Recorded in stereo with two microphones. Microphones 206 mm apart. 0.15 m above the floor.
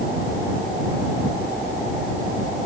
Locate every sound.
Only background noise.